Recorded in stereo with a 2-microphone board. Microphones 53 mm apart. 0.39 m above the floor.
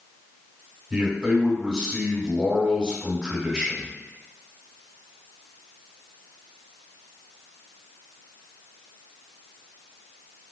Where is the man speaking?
20° right (ahead or behind), 1.3 m.